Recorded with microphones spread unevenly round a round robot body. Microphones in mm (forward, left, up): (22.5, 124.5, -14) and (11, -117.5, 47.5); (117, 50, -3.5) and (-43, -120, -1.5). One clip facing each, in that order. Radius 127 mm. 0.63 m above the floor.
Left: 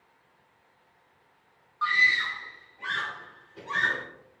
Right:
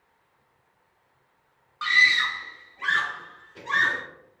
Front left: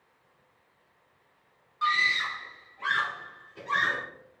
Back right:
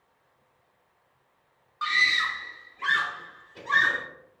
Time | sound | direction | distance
1.8 | a scream | 60° right | 0.7 m